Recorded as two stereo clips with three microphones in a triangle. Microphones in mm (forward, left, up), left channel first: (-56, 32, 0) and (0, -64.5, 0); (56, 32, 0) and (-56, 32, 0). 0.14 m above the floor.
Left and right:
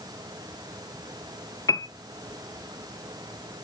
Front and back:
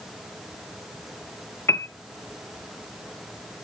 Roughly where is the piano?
Ahead left.